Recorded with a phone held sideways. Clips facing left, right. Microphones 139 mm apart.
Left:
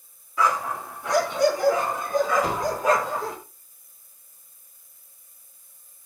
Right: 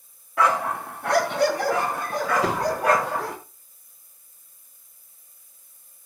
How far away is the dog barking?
About 3 m.